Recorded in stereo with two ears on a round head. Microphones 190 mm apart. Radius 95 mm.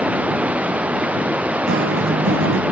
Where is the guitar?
55° right (ahead or behind).